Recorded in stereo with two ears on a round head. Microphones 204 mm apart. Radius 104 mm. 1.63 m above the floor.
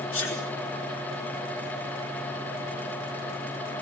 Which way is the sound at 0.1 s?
55° left (ahead or behind).